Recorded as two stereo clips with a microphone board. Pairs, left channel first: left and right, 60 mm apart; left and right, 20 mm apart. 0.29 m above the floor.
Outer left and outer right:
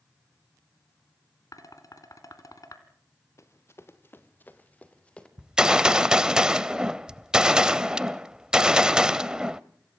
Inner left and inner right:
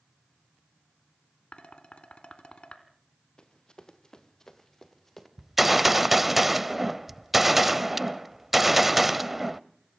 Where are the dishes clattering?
70° left (ahead or behind), 2.5 m.